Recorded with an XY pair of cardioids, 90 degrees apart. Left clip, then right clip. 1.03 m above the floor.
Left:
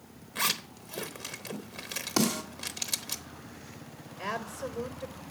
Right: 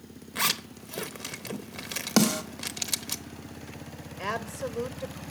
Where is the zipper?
25° right, 0.9 m.